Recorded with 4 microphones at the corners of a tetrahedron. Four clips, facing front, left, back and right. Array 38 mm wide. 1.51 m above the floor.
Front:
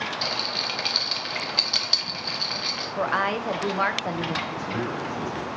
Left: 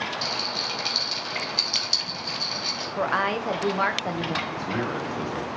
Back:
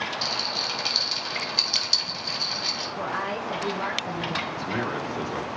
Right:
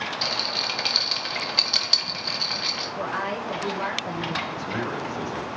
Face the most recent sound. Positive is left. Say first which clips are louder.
# left 1 dB, even
turn(degrees=155)